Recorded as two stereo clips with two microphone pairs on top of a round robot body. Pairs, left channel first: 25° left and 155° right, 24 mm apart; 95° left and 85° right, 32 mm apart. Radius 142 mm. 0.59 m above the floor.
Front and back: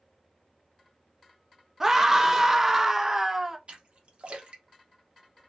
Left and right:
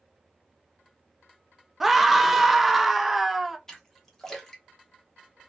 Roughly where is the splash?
Behind.